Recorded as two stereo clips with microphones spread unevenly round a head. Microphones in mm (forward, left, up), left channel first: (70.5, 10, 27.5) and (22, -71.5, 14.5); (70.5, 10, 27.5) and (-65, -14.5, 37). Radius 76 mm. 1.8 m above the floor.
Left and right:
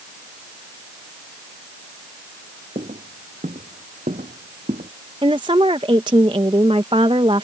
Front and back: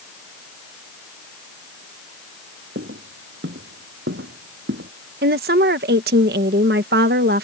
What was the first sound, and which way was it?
Footsteps, 165° right.